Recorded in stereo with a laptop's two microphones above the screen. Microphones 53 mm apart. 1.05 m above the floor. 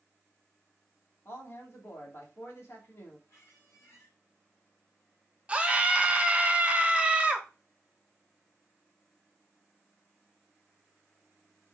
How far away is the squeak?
About 2 m.